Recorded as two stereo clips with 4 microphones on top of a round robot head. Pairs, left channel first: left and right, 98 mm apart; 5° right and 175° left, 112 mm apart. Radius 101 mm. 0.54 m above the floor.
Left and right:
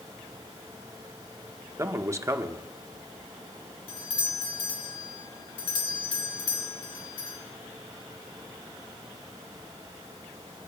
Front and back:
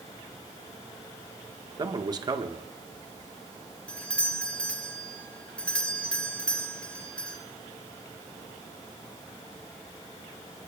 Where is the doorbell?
75° left, 2.5 m.